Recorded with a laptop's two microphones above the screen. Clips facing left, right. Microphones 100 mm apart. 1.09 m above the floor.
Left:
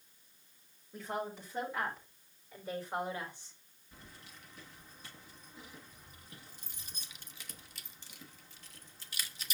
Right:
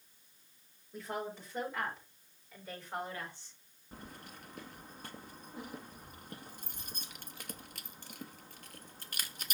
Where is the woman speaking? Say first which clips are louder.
Left 1 dB; 5° left (ahead or behind), 4.5 m; by 3.6 s 20° left (ahead or behind), 5 m.